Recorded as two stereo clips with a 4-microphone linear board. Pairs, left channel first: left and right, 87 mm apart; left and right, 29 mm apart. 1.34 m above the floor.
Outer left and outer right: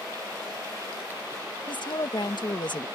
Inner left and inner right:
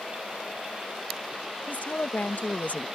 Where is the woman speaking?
65° left (ahead or behind).